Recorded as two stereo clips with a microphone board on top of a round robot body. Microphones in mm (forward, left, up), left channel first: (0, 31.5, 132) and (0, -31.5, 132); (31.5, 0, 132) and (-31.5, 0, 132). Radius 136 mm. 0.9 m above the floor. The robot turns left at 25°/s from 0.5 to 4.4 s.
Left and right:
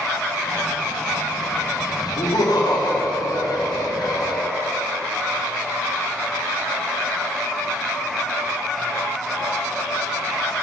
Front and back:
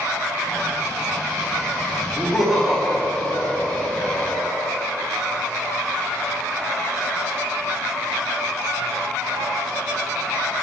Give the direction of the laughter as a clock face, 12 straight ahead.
9 o'clock.